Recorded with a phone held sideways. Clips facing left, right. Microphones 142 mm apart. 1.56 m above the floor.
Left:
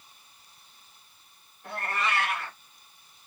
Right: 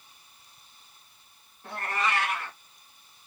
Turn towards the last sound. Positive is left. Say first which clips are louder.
# right 1 dB
turn(degrees=-25)  # may be behind; listen again after turning